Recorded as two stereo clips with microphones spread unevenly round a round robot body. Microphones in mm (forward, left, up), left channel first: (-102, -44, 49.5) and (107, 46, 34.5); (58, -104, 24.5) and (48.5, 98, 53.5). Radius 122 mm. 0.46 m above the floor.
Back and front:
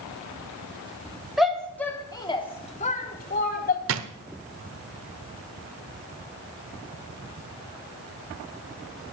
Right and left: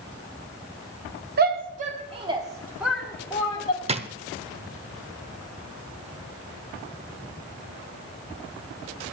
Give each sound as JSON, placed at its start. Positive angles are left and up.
{"t": 1.4, "sound": "a shout", "azimuth_deg": 105, "distance_m": 1.3}
{"t": 3.9, "sound": "a drawer", "azimuth_deg": 30, "distance_m": 0.9}